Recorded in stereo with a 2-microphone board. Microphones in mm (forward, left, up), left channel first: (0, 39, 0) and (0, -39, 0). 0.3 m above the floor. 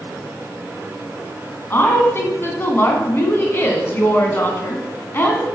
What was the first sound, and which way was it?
A woman speaking, 30° left (ahead or behind).